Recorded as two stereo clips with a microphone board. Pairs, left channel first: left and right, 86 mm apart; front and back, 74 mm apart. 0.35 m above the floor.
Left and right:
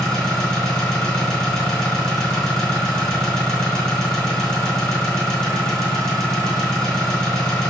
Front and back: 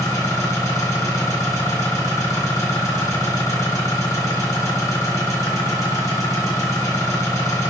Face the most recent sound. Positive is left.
turn(degrees=15)